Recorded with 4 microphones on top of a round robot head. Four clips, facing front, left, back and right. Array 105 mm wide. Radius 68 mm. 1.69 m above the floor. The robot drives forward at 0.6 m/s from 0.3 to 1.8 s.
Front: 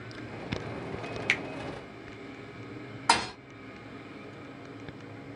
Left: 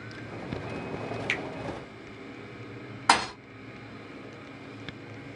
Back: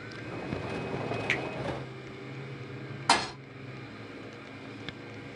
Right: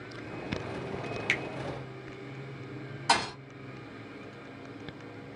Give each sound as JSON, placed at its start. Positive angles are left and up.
{"t": 1.3, "sound": "a finger snap", "azimuth_deg": -10, "distance_m": 0.8}
{"t": 3.1, "sound": "a thud", "azimuth_deg": 85, "distance_m": 1.1}